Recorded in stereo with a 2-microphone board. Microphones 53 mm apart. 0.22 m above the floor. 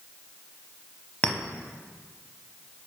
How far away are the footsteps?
No footsteps in this recording.